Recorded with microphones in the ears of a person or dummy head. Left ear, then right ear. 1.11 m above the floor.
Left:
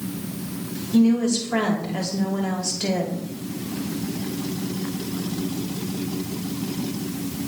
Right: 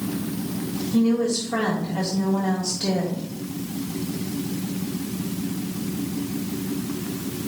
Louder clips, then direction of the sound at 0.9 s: Left 2 dB; 40° left (ahead or behind).